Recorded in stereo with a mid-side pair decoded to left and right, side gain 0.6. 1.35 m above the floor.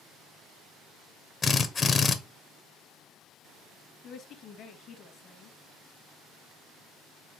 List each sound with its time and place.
1.4 s a drill: 30° left, 0.6 m
4.0 s a woman speaking: 55° left, 1.1 m